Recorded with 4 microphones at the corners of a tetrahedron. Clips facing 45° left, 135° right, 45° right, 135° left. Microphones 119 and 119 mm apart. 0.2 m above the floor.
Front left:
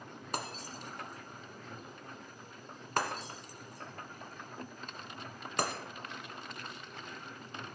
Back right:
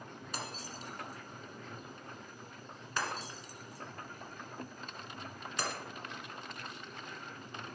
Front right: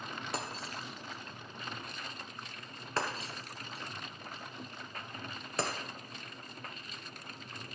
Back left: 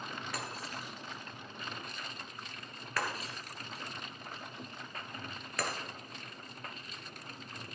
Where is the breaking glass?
15° left, 1.6 m.